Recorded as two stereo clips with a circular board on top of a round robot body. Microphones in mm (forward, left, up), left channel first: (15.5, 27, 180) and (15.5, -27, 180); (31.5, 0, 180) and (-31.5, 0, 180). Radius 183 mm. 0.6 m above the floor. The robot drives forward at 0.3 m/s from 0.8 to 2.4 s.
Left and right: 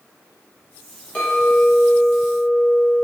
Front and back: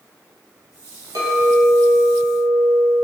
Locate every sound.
1.1 s a clink: 155° left, 2 m; by 3.0 s 160° left, 2.5 m